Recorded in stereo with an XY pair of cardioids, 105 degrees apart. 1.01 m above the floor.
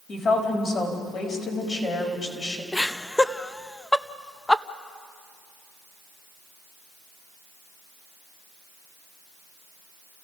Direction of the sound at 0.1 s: 50° left.